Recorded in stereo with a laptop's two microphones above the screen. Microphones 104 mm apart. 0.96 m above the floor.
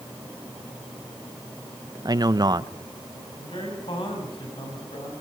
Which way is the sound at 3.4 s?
55° left (ahead or behind).